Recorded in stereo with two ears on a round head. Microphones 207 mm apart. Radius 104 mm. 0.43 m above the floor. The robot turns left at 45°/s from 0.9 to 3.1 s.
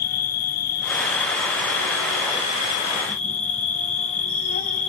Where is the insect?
135° left, 2 m; by 4.9 s 35° left, 2 m.